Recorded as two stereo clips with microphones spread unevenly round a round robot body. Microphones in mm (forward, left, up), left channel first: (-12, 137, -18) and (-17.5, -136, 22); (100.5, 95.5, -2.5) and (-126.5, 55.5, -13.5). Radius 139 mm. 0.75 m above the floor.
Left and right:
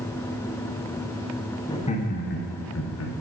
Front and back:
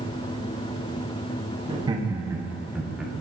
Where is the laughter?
140° left, 0.9 m; by 3.1 s 105° left, 1.4 m.